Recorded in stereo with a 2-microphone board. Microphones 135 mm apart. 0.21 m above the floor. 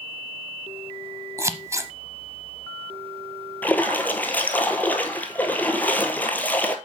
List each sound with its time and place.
1.4 s scissors: 20° right (ahead or behind), 0.8 m
3.6 s a splash: 10° left (ahead or behind), 1.0 m